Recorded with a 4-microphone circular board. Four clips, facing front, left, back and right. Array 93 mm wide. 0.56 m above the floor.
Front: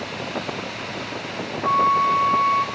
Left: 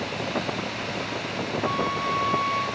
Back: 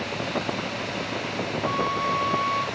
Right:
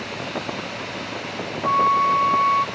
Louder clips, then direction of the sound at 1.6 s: Right 11 dB, front 9 dB; 50° right.